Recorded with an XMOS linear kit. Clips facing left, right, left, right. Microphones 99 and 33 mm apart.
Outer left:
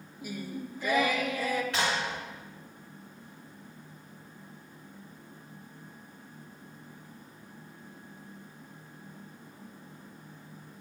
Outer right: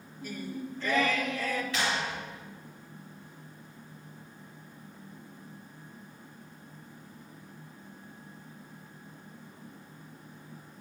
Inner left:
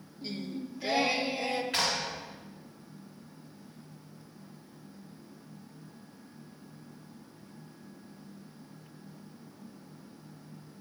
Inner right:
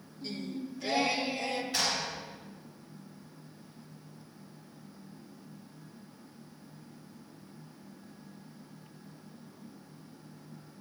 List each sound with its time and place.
0.2 s singing: 10° left (ahead or behind), 0.6 m
1.7 s a clap: 65° left (ahead or behind), 3 m